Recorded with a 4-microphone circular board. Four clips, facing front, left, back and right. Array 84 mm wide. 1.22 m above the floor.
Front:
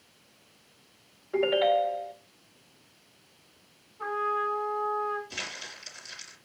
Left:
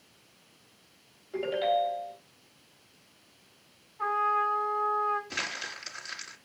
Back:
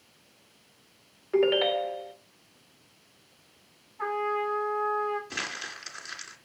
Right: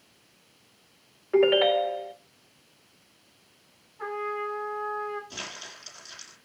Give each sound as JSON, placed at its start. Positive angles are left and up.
{"t": 1.3, "sound": "a ringtone", "azimuth_deg": -110, "distance_m": 1.7}
{"t": 4.0, "sound": "a trumpet", "azimuth_deg": 175, "distance_m": 5.5}
{"t": 5.3, "sound": "crumpling", "azimuth_deg": 145, "distance_m": 3.0}